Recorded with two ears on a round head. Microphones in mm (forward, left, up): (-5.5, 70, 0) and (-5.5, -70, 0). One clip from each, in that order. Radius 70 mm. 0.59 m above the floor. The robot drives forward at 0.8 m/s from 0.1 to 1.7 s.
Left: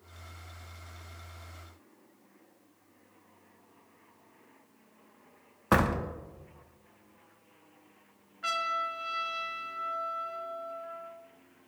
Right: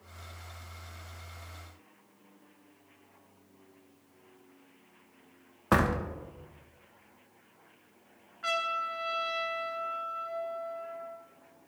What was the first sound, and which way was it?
A door slam, 5° left (ahead or behind).